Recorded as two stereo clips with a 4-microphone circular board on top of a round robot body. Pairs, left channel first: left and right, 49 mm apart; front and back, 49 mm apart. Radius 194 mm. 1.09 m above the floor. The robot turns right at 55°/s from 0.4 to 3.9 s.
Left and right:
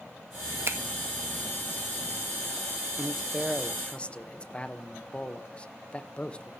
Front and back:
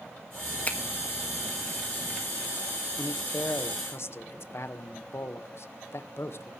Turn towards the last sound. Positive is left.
turn(degrees=25)